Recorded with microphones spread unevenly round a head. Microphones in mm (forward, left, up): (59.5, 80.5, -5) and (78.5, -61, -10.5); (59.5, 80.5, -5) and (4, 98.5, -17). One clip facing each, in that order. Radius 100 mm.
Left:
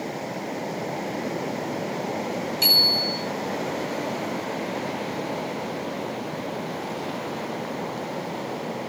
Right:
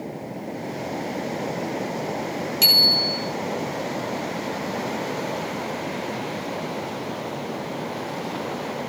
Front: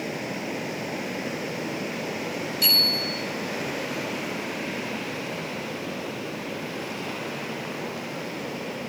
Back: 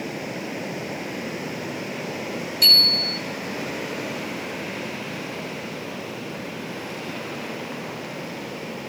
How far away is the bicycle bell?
About 2.5 m.